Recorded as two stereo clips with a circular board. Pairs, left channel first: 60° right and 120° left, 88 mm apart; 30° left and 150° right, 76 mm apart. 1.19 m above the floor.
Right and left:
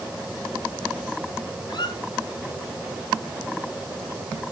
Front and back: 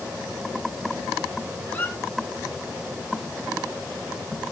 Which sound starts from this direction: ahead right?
A squeak, at 1.7 s.